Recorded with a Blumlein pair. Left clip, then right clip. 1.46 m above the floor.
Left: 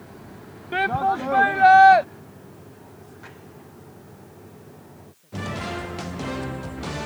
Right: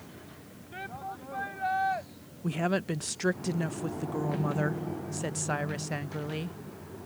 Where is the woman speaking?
45° right.